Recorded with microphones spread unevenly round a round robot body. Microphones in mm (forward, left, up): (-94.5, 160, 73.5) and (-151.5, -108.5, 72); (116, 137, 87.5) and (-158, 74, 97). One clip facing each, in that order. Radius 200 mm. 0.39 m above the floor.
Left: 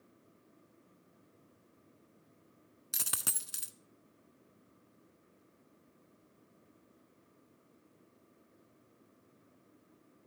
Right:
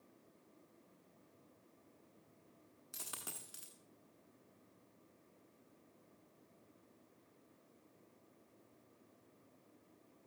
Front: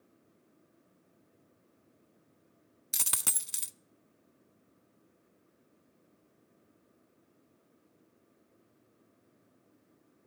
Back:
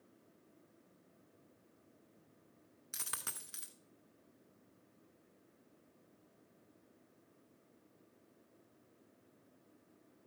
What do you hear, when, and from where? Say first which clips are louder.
2.9 s a dropped coin: left 6 dB, front 9 dB; 55° left, 0.6 m